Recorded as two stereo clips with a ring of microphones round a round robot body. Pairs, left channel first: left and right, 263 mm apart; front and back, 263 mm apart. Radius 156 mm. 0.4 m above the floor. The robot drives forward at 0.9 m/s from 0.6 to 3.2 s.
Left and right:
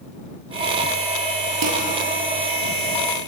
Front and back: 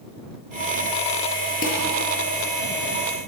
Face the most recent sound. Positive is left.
turn(degrees=-75)